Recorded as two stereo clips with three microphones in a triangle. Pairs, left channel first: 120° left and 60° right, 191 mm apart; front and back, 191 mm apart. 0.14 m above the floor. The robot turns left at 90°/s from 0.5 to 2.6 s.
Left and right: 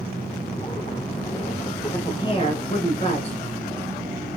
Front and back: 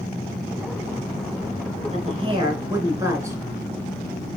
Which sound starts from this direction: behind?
A woman speaking, at 1.9 s.